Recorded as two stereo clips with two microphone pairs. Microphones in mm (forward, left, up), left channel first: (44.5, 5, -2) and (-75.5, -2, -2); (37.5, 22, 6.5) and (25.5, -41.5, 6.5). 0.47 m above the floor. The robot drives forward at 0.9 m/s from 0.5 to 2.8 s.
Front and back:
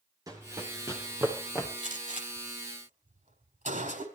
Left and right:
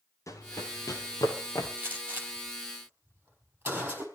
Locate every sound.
0.3 s running footsteps: 120° left, 4.5 m; by 1.7 s 110° left, 6 m
1.8 s a gunshot: 160° right, 4 m; by 4.0 s 165° right, 5 m